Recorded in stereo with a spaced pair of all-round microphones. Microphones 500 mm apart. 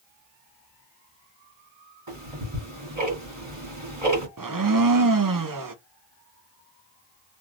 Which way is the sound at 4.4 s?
40° right (ahead or behind).